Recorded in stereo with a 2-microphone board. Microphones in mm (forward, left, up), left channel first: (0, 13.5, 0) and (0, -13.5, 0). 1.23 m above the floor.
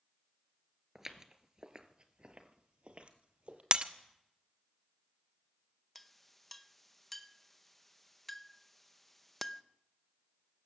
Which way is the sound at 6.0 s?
5° left (ahead or behind).